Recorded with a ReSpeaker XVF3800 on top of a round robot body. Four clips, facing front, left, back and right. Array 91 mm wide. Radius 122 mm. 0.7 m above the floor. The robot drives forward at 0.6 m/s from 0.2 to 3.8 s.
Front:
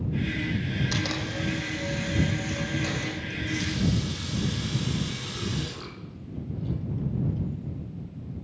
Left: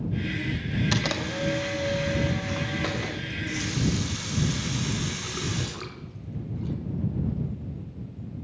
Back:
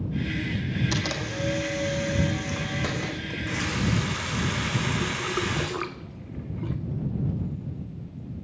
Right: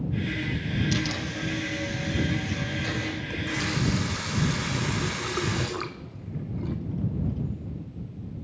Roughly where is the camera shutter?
Left.